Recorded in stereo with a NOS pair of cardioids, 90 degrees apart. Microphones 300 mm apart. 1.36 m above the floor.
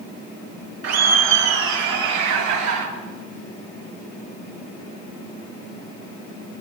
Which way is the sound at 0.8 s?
55° right.